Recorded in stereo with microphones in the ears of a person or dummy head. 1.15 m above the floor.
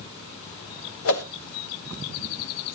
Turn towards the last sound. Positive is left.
turn(degrees=70)  # may be behind; listen again after turning